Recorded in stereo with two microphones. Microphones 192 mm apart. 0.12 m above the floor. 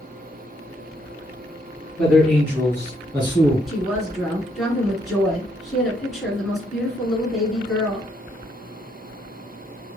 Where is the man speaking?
5° left (ahead or behind), 1.9 m; by 3.6 s 25° left (ahead or behind), 1.9 m.